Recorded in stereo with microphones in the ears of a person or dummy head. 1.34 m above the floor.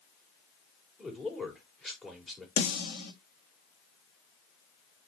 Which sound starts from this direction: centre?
A man speaking, at 1.0 s.